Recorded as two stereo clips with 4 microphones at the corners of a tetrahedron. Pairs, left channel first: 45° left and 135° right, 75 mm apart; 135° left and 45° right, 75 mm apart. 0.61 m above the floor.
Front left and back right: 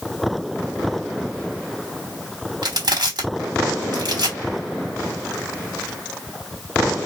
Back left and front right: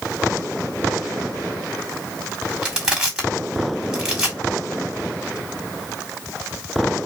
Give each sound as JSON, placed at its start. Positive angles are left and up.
{"t": 2.6, "sound": "crushing", "azimuth_deg": -120, "distance_m": 1.4}